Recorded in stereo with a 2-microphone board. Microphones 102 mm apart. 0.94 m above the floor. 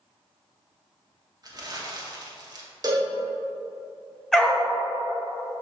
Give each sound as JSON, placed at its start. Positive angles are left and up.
{"t": 1.4, "sound": "crumpling", "side_deg": -40, "distance_m": 1.1}
{"t": 2.8, "sound": "a cowbell", "side_deg": -40, "distance_m": 0.8}
{"t": 4.3, "sound": "a dog barking", "side_deg": 5, "distance_m": 0.9}